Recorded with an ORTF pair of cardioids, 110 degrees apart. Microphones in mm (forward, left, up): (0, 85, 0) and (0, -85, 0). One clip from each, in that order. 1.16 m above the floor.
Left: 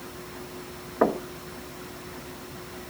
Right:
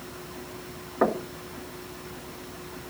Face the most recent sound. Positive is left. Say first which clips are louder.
# left 1 dB
turn(degrees=5)